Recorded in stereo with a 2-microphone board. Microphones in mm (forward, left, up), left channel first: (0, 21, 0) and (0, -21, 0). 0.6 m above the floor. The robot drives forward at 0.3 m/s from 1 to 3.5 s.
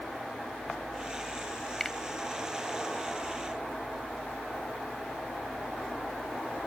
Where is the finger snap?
10° left (ahead or behind).